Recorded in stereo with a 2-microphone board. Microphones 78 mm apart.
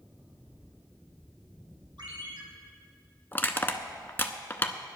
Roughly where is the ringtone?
Right.